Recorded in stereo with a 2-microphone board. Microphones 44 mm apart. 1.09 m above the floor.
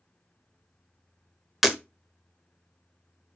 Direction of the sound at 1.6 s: 5° right (ahead or behind).